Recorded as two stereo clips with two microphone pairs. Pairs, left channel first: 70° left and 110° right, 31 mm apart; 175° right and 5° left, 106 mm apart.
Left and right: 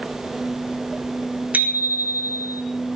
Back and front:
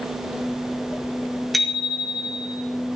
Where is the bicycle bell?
85° right, 4.5 m.